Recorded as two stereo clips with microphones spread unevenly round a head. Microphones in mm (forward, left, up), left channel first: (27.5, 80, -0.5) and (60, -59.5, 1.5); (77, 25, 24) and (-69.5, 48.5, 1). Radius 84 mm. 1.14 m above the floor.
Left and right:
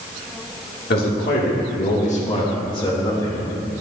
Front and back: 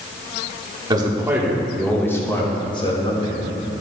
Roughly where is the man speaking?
Behind left.